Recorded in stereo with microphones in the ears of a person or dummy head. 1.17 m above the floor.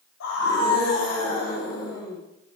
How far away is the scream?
About 9 m.